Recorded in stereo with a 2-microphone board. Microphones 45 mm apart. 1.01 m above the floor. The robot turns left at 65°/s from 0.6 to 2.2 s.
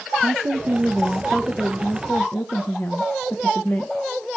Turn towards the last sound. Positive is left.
turn(degrees=120)